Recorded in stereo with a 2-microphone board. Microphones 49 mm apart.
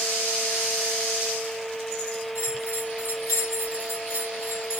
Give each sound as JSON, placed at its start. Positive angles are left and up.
{"t": 2.4, "sound": "a bell", "side_deg": -80, "distance_m": 2.5}